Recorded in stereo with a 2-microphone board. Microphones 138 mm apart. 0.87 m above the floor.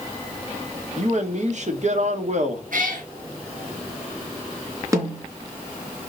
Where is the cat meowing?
75° right (ahead or behind), 5 m.